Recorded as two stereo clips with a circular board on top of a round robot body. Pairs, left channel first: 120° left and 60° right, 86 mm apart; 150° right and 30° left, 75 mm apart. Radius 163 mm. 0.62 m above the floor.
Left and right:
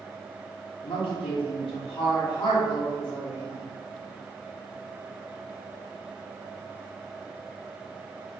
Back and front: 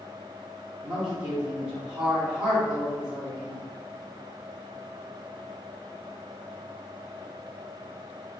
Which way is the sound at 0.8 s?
110° left.